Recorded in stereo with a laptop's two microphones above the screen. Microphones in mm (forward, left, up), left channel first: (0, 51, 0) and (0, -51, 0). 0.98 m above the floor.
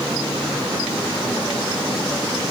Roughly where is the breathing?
I don't hear breathing.